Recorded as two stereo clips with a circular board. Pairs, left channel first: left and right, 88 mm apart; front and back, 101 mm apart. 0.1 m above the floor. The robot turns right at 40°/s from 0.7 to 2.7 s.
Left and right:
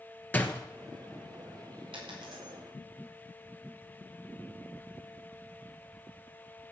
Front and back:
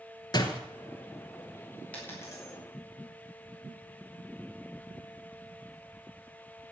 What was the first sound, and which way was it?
A door slam, 25° left.